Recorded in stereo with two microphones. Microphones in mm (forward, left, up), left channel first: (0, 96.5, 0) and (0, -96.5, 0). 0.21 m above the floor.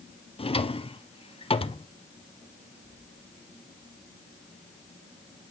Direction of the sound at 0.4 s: 30° left (ahead or behind).